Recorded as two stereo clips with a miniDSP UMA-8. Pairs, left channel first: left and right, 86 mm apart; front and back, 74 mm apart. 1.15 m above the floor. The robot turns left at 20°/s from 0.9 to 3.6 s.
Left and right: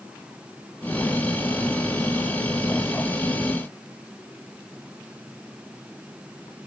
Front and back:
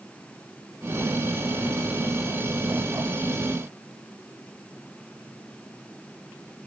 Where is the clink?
I don't hear a clink.